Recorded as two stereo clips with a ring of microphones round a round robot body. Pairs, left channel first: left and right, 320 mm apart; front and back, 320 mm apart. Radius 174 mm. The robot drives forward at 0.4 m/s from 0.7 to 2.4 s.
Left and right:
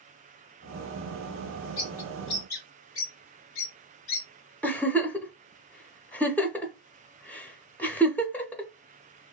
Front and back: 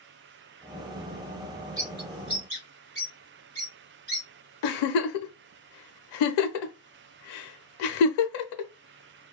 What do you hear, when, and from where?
1.8 s a bird: 110° left, 1.6 m; by 4.3 s 120° left, 1.7 m
4.6 s a giggle: 5° left, 0.5 m